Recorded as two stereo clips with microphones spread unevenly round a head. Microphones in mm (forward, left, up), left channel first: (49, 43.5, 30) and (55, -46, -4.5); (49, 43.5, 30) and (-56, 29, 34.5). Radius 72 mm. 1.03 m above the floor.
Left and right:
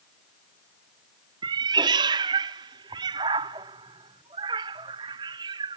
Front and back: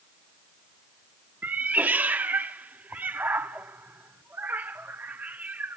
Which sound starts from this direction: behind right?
A cat meowing, at 1.4 s.